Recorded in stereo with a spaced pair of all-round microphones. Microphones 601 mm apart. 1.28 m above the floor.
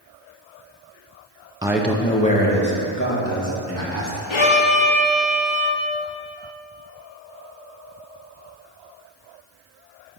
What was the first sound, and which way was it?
A man speaking, 10° right (ahead or behind).